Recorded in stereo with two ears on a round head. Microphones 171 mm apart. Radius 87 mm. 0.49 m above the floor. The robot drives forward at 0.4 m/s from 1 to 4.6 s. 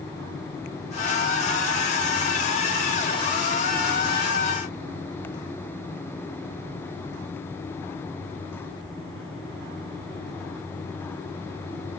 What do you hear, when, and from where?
Only background noise.